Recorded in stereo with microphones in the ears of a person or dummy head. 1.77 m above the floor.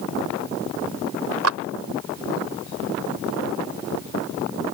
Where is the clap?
80° right.